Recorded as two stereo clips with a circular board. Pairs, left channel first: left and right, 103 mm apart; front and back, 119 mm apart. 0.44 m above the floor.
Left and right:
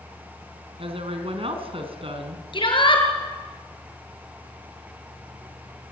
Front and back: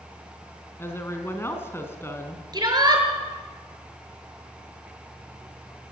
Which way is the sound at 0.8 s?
70° right.